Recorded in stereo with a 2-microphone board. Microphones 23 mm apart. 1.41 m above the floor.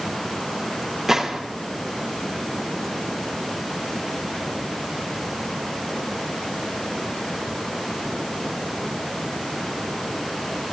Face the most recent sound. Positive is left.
turn(degrees=-15)  # may be behind; listen again after turning